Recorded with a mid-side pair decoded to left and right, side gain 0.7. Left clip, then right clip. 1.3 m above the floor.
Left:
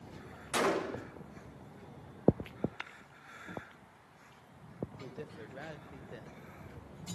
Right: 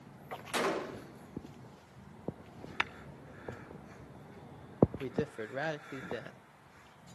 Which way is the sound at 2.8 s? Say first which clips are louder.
Right 10 dB; 45° right.